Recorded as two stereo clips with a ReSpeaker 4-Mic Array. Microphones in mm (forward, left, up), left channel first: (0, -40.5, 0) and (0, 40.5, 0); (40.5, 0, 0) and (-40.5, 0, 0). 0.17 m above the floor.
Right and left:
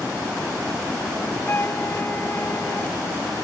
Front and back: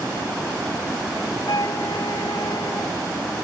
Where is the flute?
30° right.